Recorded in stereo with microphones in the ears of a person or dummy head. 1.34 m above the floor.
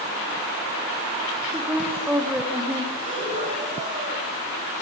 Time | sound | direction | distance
1.5 | a woman speaking | 5° right (ahead or behind) | 2.5 m
3.0 | breathing | 35° right (ahead or behind) | 8 m